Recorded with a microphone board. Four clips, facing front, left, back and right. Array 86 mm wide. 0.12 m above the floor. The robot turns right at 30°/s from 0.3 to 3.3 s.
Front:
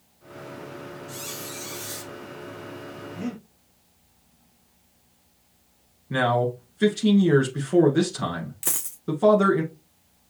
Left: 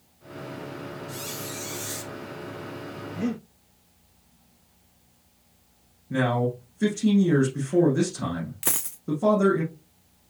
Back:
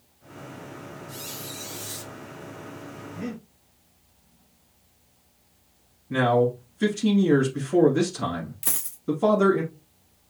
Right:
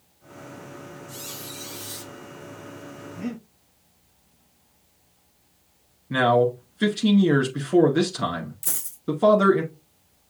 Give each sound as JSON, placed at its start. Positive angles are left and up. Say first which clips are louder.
{"t": 1.1, "sound": "a squeak", "louder": "left 4 dB, front 2 dB", "azimuth_deg": 25, "distance_m": 3.5}
{"t": 3.2, "sound": "breathing", "louder": "left 4 dB, front 2 dB", "azimuth_deg": 80, "distance_m": 3.5}
{"t": 6.1, "sound": "a man speaking", "louder": "right 6 dB, back 2 dB", "azimuth_deg": -65, "distance_m": 1.2}
{"t": 8.6, "sound": "a dropped coin", "louder": "left 8 dB, front 1 dB", "azimuth_deg": 80, "distance_m": 0.9}